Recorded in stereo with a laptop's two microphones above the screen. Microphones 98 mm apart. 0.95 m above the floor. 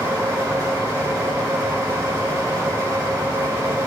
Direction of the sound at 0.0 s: 30° right (ahead or behind).